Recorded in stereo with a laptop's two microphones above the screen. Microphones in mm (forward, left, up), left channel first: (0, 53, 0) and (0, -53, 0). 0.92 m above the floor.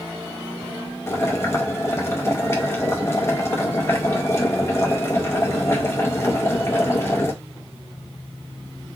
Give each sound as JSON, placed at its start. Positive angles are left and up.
{"t": 1.1, "sound": "boiling", "side_deg": 25, "distance_m": 0.6}